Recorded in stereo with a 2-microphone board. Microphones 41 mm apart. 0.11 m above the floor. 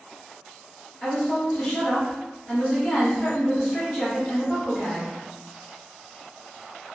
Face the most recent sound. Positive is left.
turn(degrees=20)  # may be behind; listen again after turning